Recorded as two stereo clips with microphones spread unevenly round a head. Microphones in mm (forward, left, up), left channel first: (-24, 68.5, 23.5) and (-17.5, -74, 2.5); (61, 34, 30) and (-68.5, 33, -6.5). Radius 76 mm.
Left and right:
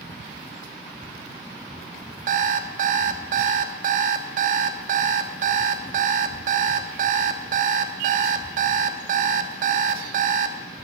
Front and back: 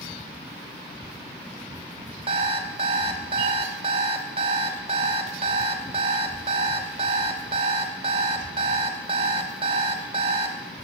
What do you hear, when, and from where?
2.3 s an alarm clock: 115° right, 0.8 m